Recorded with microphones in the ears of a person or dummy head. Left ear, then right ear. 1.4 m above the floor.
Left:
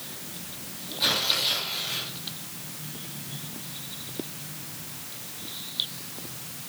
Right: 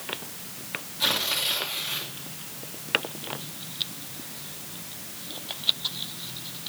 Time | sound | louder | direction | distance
1.0 | tearing paper | left 1 dB | 10° right (ahead or behind) | 2.5 m